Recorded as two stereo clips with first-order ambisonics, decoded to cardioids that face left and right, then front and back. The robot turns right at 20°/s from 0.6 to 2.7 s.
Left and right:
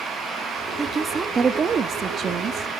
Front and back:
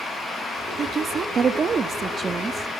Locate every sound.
0.8 s a woman speaking: 150° right, 0.8 m; by 2.7 s 115° right, 0.8 m